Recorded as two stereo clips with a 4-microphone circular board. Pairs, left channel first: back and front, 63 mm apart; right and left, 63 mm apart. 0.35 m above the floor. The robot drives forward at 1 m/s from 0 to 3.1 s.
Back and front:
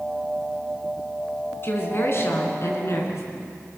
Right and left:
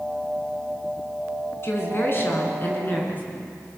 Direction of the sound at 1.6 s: 135° right.